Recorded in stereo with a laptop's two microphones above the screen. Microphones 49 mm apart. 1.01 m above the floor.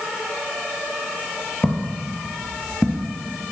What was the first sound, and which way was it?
Footsteps, 35° left (ahead or behind).